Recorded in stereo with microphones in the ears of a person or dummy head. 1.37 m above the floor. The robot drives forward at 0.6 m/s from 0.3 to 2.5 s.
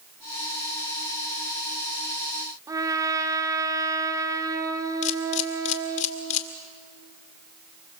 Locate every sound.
2.7 s a trumpet: 20° right (ahead or behind), 1.7 m
5.0 s a camera shutter: 40° left (ahead or behind), 2 m